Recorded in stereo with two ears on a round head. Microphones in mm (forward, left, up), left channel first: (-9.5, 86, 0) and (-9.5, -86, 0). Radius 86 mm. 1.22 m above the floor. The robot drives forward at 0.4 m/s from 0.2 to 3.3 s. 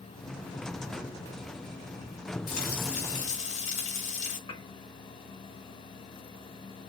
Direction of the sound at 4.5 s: 25° left (ahead or behind).